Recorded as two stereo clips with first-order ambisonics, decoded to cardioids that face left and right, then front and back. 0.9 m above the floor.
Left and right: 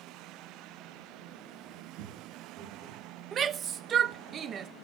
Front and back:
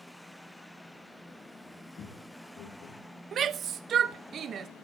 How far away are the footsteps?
About 3 m.